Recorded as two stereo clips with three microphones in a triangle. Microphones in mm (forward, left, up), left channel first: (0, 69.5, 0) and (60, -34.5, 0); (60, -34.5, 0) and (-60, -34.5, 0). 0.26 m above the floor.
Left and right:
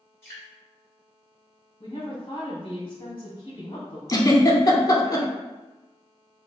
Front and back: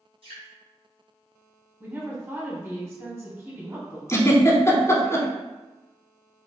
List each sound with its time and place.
0.2 s dripping: 175° right, 1.8 m
1.8 s a woman speaking: 120° left, 1.4 m
4.1 s a giggle: 60° left, 0.5 m